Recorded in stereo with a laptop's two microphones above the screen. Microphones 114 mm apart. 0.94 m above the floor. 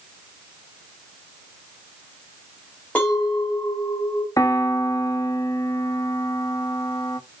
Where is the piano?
30° left (ahead or behind), 1.1 m.